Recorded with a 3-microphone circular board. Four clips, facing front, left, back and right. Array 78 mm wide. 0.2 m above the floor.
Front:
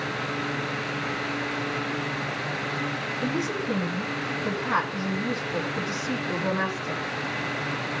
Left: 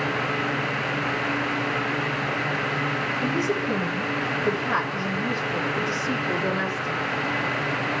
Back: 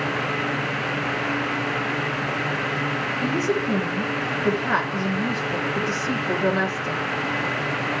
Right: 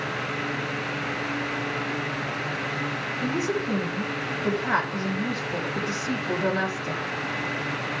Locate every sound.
3.2 s a woman speaking: 140° right, 10 m